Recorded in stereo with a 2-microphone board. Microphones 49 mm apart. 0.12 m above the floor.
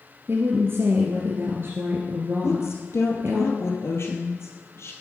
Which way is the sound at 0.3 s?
55° right (ahead or behind).